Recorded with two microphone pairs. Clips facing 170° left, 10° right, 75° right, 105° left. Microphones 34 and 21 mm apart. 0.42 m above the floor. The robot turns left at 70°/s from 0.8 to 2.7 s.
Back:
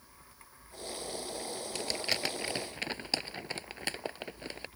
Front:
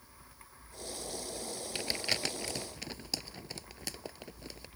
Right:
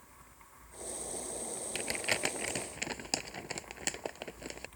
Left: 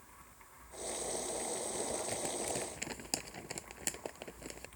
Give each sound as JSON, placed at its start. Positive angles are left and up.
{"t": 1.8, "sound": "crumpling", "azimuth_deg": -80}